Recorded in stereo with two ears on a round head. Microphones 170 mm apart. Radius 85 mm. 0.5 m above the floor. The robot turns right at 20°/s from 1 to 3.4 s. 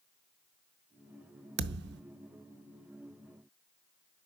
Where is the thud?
60° right (ahead or behind), 0.6 m.